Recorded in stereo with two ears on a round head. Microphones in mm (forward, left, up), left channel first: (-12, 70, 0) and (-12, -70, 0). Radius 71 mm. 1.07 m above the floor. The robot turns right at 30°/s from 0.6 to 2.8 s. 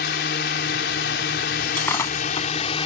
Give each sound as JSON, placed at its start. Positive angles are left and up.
{"t": 0.0, "sound": "a drone", "azimuth_deg": 70}
{"t": 1.7, "sound": "breaking glass", "side_deg": 10}